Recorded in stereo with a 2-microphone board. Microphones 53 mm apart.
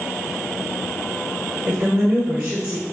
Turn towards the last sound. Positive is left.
turn(degrees=-35)  # may be behind; listen again after turning